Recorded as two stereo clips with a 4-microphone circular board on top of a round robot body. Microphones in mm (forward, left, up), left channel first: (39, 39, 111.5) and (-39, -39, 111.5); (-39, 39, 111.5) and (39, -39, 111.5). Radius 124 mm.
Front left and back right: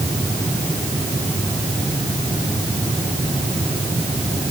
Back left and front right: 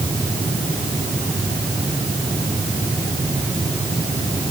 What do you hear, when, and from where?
Only background noise.